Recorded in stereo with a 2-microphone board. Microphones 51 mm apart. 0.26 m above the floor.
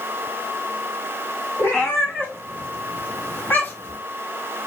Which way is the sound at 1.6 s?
50° left (ahead or behind).